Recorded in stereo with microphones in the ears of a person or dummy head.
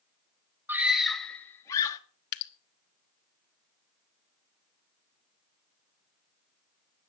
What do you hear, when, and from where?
0.7 s a scream: 10° right (ahead or behind), 1.5 m; by 2.0 s 20° left (ahead or behind), 2 m
2.3 s dripping: 55° left (ahead or behind), 1.3 m